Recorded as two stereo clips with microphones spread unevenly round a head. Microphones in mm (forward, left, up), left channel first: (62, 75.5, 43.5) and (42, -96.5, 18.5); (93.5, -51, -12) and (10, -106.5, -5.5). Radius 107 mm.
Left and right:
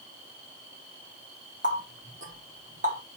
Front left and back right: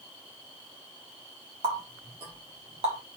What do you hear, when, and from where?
1.6 s a running tap: 155° right, 1.2 m